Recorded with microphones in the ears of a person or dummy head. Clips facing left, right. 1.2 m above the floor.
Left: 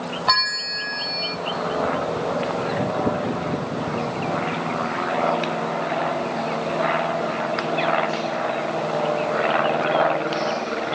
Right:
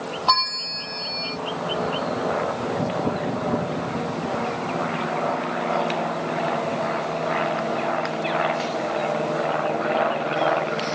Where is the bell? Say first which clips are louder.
Right 1 dB; 20° left (ahead or behind).